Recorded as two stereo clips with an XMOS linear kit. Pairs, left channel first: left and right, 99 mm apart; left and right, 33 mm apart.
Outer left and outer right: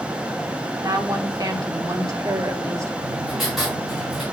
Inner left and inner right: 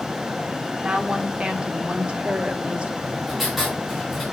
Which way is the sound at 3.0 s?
Centre (ahead or behind).